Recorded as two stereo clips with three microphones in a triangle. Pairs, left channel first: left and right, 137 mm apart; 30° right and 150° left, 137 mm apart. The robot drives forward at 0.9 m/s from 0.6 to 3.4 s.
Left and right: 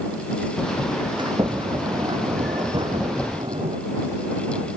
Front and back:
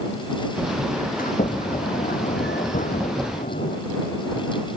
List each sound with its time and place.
1.2 s a sliding door: 35° right; by 3.8 s 40° right